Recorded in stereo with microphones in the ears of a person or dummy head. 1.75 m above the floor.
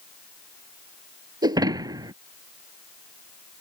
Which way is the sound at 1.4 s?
25° right (ahead or behind).